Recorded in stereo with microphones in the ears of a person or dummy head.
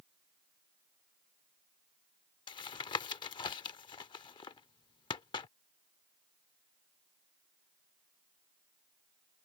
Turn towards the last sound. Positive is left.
turn(degrees=30)  # may be behind; listen again after turning